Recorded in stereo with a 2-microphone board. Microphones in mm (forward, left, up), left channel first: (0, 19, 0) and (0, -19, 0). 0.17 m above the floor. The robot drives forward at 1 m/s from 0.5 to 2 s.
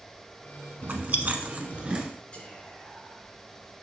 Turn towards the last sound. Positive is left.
turn(degrees=30)  # may be behind; listen again after turning